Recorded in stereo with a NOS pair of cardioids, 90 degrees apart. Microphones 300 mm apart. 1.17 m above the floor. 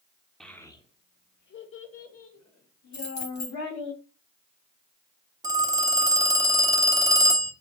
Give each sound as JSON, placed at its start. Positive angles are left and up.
{"t": 0.4, "sound": "a child speaking", "azimuth_deg": 0, "distance_m": 1.0}
{"t": 2.9, "sound": "keys jangling", "azimuth_deg": 65, "distance_m": 3.0}
{"t": 5.4, "sound": "a phone ringing", "azimuth_deg": -10, "distance_m": 0.9}